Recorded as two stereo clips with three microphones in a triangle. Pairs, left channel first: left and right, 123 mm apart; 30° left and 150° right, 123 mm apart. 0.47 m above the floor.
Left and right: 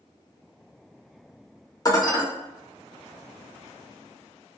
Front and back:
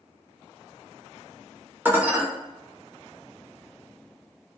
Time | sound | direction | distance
1.9 | dishes clattering | 140° left | 0.7 m